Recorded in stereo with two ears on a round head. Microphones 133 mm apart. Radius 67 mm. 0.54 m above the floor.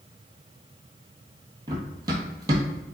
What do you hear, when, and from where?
1.7 s running footsteps: 25° right (ahead or behind), 0.7 m